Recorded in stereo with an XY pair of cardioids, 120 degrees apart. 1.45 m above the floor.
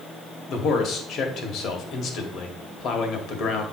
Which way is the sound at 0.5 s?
60° left.